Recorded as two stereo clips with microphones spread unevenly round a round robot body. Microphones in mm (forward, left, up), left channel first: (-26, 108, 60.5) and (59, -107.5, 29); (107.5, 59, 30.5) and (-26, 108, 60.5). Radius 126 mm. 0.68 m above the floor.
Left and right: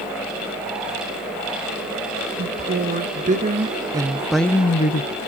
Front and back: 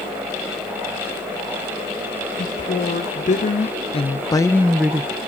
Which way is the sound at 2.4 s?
25° right.